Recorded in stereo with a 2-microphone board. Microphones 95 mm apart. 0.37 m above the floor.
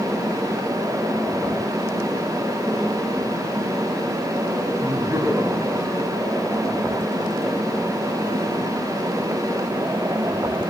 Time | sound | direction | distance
4.8 | laughter | 30° right (ahead or behind) | 7 m